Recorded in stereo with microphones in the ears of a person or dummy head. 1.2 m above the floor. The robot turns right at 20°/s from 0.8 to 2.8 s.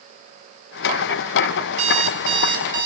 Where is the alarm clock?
45° right (ahead or behind), 3.5 m; by 2.9 s 20° right (ahead or behind), 3.5 m.